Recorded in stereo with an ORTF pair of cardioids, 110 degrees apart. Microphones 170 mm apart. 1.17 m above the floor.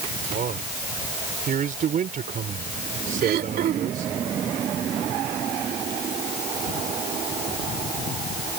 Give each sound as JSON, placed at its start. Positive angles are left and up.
{"t": 0.3, "sound": "a man speaking", "azimuth_deg": -50}
{"t": 3.2, "sound": "throat clearing", "azimuth_deg": -65}